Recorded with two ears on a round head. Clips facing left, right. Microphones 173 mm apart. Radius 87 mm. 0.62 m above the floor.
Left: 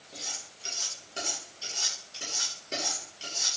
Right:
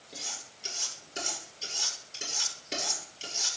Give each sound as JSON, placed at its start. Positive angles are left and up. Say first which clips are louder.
{"t": 0.1, "sound": "cutlery clinking", "louder": "even", "side_deg": -20, "distance_m": 7.0}